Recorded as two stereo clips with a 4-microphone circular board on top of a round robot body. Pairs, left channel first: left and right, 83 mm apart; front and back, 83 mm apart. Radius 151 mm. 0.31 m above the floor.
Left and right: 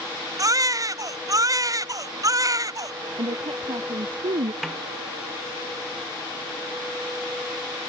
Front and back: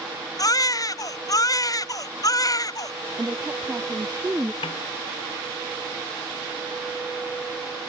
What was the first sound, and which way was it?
A baby crying, 45° right.